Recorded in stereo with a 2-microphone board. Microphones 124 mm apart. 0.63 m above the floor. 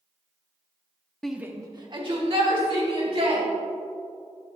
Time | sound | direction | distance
1.2 | a shout | 5° left (ahead or behind) | 0.6 m